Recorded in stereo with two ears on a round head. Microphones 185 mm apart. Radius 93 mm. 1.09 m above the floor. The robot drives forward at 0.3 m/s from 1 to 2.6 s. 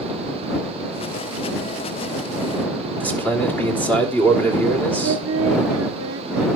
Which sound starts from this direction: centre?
A man speaking, at 3.0 s.